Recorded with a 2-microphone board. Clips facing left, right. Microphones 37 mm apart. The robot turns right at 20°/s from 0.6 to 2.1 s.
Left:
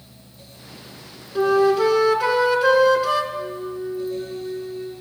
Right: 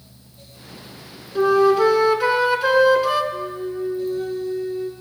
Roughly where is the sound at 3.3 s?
Right.